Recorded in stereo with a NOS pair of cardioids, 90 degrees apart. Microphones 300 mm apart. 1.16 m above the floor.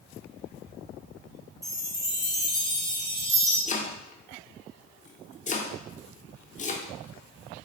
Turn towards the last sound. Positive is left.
turn(degrees=25)